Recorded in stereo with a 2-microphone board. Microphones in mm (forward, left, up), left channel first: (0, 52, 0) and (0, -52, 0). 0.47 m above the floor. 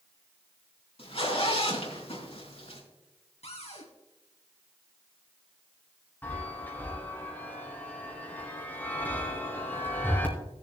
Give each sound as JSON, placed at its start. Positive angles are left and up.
{"t": 1.0, "sound": "a zipper", "side_deg": 65, "distance_m": 4.0}
{"t": 3.4, "sound": "a cupboard door", "side_deg": 85, "distance_m": 2.5}
{"t": 6.2, "sound": "a chime", "side_deg": 15, "distance_m": 2.5}